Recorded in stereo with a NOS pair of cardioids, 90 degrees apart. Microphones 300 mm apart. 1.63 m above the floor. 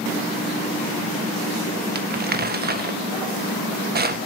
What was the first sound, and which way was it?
Crumpling, 35° right.